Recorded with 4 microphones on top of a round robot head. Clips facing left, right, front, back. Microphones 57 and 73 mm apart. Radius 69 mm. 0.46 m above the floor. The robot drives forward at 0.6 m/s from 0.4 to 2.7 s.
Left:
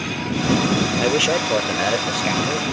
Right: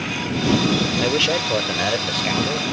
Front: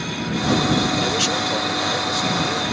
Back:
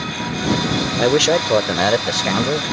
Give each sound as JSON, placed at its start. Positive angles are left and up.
{"t": 1.0, "sound": "a man speaking", "azimuth_deg": 165}